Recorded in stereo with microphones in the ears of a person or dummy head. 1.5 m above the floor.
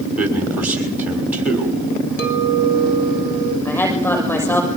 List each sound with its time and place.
0.2 s a man speaking: 5° right (ahead or behind), 6 m
2.2 s a clink: 60° left (ahead or behind), 4 m
3.6 s a woman speaking: 10° left (ahead or behind), 6.5 m